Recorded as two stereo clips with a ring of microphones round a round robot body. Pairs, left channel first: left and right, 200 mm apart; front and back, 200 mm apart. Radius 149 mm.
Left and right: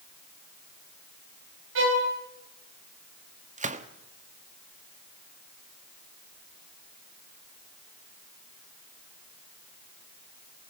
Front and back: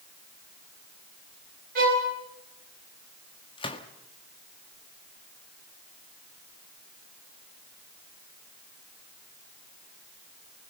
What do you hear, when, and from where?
1.8 s a violin: 125° right, 5 m
3.6 s a gunshot: 55° right, 1.5 m